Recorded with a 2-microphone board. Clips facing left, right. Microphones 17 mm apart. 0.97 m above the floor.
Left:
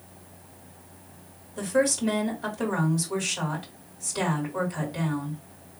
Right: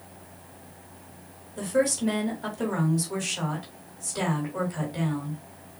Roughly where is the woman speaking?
Centre.